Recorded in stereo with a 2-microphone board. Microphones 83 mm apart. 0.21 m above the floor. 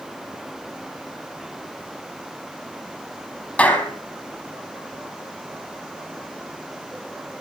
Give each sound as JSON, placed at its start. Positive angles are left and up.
{"t": 3.6, "sound": "a clap", "side_deg": 20, "distance_m": 4.5}